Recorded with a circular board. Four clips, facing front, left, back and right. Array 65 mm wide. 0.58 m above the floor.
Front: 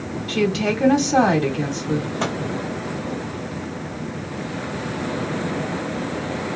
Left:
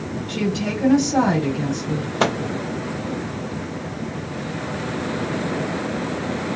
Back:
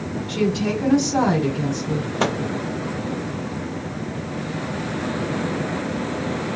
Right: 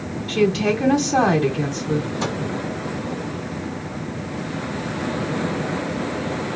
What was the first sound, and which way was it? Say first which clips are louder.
A woman speaking: right 6 dB, front 1 dB; 30° right.